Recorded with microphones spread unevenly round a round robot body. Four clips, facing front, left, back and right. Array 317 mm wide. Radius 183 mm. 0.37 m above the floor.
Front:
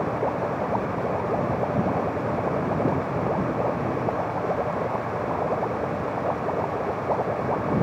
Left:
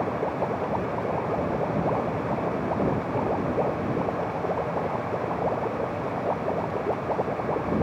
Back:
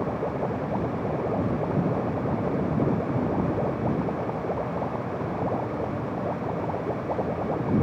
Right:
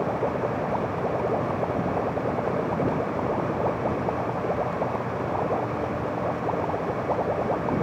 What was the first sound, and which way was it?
Only background noise.